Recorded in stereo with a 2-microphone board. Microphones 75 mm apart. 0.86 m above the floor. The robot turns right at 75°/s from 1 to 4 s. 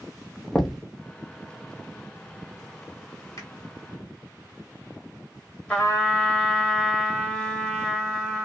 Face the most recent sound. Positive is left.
turn(degrees=15)  # may be behind; listen again after turning